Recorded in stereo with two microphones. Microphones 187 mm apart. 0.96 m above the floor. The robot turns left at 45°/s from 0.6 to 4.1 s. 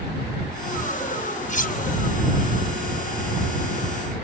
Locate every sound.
1.5 s cutlery clinking: 45° left (ahead or behind); by 1.8 s 55° left (ahead or behind)